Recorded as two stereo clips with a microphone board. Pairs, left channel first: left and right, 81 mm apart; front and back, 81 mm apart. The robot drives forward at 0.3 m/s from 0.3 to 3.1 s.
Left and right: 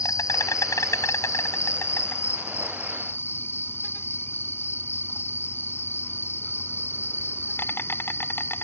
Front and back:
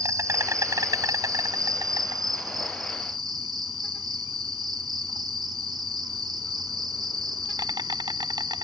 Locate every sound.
0.0 s an insect: 135° left; by 8.6 s 150° left